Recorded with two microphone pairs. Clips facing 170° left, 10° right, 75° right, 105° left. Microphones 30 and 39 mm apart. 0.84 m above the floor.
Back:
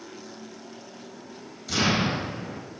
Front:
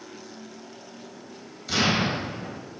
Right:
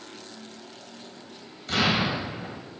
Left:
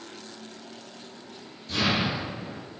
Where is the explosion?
85° right, 2.5 m.